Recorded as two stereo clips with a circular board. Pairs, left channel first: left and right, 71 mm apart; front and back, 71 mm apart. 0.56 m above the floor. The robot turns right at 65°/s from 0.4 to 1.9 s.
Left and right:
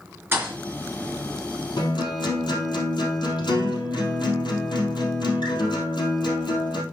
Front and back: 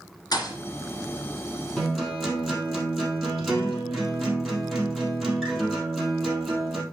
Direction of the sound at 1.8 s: 80° left.